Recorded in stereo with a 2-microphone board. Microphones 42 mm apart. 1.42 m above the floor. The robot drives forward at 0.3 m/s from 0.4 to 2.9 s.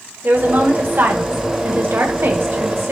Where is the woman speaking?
50° right (ahead or behind), 1.9 m; by 2.9 s 75° right (ahead or behind), 1.5 m.